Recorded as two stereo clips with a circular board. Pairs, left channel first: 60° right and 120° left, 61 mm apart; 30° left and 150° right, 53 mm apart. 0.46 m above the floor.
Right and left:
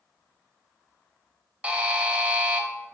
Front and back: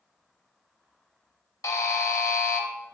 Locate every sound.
1.6 s a buzzer: 50° left, 0.5 m